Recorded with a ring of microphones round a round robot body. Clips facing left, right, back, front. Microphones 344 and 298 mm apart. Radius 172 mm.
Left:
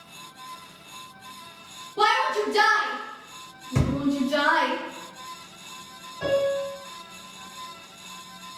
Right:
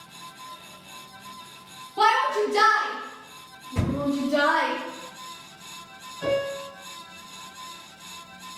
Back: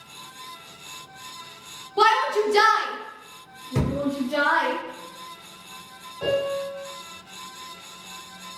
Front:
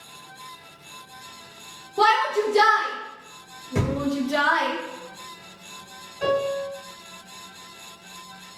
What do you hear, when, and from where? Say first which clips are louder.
2.0 s a shout: right 1 dB, back 1 dB; 170° right, 1.0 m; by 4.7 s 60° left, 1.1 m
3.8 s a thud: left 2 dB, even; 105° left, 1.1 m
6.2 s a piano: left 3 dB, front 1 dB; 60° left, 1.8 m